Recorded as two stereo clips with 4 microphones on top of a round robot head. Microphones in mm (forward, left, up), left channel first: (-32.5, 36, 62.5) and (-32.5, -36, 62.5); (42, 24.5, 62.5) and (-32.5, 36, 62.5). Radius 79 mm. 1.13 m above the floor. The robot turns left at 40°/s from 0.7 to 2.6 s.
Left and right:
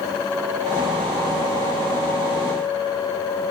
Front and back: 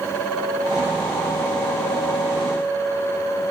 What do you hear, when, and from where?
Only background noise.